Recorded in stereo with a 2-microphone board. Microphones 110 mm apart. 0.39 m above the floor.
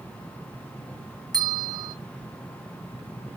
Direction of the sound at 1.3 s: 35° right (ahead or behind).